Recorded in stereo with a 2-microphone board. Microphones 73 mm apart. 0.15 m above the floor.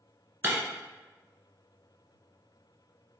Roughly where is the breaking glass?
Right.